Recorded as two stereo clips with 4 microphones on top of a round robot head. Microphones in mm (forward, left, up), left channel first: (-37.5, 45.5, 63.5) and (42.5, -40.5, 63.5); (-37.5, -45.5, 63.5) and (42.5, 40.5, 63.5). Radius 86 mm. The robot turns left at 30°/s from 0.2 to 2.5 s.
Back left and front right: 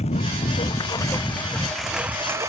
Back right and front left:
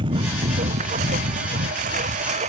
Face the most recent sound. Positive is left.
turn(degrees=20)